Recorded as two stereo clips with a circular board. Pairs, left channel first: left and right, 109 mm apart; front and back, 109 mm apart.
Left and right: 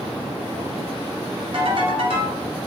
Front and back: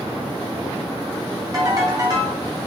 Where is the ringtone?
125° right, 2.5 m.